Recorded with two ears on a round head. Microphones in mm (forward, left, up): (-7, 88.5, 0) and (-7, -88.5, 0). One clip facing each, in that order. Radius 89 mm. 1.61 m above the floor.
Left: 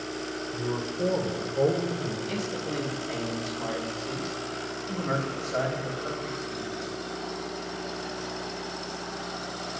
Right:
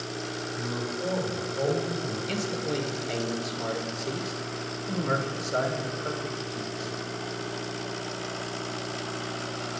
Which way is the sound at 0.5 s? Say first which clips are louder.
Left 3 dB; 55° left (ahead or behind).